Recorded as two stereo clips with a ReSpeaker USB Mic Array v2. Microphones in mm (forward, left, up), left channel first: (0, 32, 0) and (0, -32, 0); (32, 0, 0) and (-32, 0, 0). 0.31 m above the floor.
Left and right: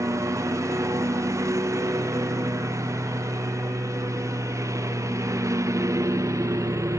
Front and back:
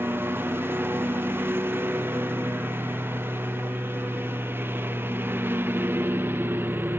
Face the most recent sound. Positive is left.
turn(degrees=-125)